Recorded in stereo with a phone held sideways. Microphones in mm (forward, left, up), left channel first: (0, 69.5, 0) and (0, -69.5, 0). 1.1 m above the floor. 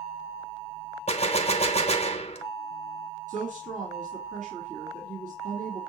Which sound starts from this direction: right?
A woman speaking, at 3.3 s.